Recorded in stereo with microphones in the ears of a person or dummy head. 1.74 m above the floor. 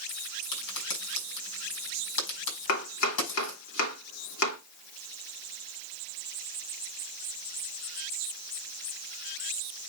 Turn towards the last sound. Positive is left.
turn(degrees=75)  # may be behind; listen again after turning